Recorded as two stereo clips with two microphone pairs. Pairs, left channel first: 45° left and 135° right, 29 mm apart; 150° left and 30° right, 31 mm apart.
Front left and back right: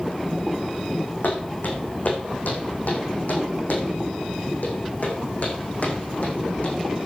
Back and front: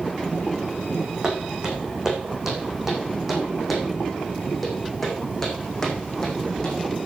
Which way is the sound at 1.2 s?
40° left.